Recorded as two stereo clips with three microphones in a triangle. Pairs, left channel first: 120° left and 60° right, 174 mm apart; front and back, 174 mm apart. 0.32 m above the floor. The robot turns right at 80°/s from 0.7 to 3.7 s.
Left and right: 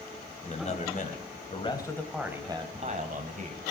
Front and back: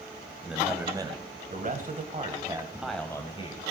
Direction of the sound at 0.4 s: 95° left.